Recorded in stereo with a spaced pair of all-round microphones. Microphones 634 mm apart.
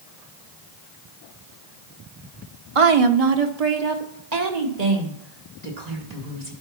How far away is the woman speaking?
About 0.9 m.